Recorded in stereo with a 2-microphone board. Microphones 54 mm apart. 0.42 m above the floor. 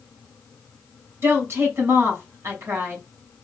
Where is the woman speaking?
50° right (ahead or behind), 2.5 m.